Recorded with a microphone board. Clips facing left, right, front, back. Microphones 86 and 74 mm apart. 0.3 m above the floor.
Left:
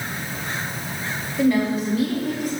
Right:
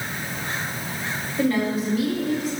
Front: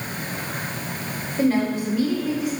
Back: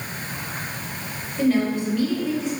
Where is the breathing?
I don't hear breathing.